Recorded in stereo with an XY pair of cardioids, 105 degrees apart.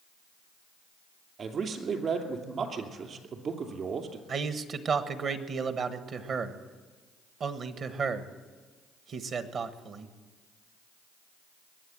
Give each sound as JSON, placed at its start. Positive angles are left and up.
{"t": 1.4, "sound": "a man speaking", "azimuth_deg": -50, "distance_m": 2.5}
{"t": 4.3, "sound": "a man speaking", "azimuth_deg": -55, "distance_m": 1.2}